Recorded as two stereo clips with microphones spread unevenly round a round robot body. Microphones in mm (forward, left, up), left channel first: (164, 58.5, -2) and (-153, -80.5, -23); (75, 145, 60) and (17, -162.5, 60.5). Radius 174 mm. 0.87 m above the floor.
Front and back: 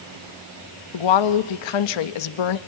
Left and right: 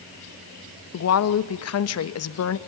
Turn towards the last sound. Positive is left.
turn(degrees=35)